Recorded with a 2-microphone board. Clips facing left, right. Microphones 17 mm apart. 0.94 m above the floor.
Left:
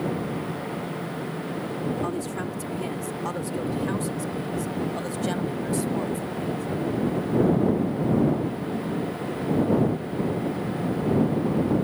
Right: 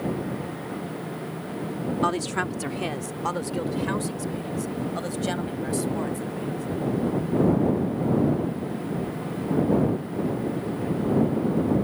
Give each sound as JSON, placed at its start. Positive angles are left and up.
{"t": 2.0, "sound": "a woman speaking", "side_deg": -45}